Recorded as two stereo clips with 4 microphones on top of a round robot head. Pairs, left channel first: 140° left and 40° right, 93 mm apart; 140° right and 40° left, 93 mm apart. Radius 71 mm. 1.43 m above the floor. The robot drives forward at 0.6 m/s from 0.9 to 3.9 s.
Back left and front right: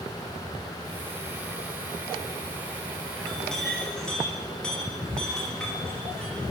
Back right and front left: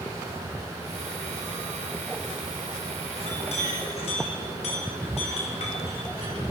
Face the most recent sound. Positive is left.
turn(degrees=-135)